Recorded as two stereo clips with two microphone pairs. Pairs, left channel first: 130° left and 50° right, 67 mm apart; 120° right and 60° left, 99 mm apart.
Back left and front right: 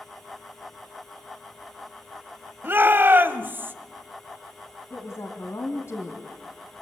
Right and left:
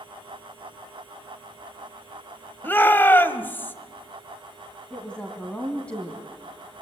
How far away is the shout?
About 1.4 m.